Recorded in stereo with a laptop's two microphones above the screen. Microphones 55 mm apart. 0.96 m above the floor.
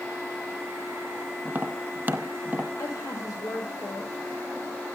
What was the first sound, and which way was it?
Tapping, 30° right (ahead or behind).